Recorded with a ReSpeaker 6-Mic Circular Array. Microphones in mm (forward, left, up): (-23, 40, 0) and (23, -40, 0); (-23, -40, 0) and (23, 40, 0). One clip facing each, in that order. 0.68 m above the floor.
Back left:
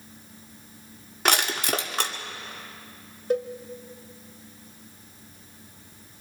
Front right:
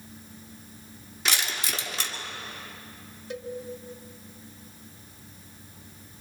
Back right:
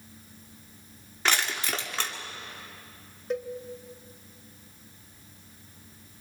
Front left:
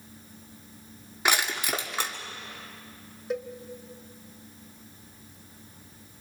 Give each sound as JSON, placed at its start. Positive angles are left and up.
{"t": 1.2, "sound": "crushing", "azimuth_deg": 135, "distance_m": 1.7}
{"t": 3.3, "sound": "a cowbell", "azimuth_deg": 145, "distance_m": 1.0}